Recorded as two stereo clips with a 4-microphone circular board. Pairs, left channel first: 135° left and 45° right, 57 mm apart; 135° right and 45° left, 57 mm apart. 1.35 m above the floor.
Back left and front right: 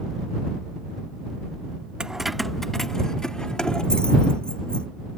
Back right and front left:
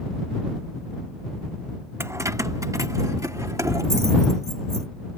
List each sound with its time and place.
2.0 s keys jangling: 25° left; by 4.9 s 65° left